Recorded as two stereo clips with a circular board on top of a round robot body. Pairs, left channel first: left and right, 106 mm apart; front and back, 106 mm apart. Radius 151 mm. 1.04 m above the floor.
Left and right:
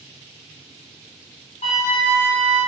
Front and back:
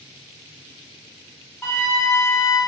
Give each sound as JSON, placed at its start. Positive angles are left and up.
{"t": 1.6, "sound": "a flute", "azimuth_deg": 70, "distance_m": 1.3}